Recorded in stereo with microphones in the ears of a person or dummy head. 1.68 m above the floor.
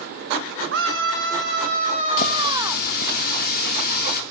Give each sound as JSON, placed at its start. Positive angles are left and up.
{"t": 0.7, "sound": "a scream", "side_deg": -60, "distance_m": 1.3}
{"t": 2.2, "sound": "a running tap", "side_deg": 55, "distance_m": 2.5}